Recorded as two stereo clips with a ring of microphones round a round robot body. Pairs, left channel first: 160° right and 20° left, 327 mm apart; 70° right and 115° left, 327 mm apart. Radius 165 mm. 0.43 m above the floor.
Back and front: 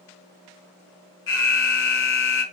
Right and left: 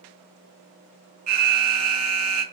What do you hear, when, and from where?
1.3 s an alarm: 150° left, 1.5 m